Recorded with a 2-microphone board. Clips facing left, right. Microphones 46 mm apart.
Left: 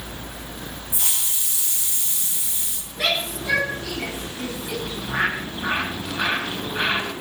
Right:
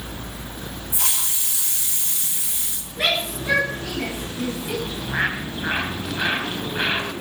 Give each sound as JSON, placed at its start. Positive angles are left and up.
{"t": 0.9, "sound": "a hiss", "side_deg": -70, "distance_m": 1.7}
{"t": 3.0, "sound": "a shout", "side_deg": -20, "distance_m": 9.5}
{"t": 4.8, "sound": "a bird", "side_deg": -10, "distance_m": 3.0}